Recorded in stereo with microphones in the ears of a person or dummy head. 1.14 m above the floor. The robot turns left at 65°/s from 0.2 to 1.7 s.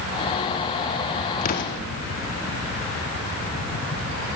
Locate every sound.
1.4 s an explosion: 45° left (ahead or behind), 1.3 m; by 1.8 s 65° left (ahead or behind), 1.3 m